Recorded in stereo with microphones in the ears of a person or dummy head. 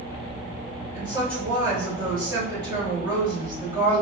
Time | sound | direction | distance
0.9 | a woman speaking | 25° right (ahead or behind) | 1.9 m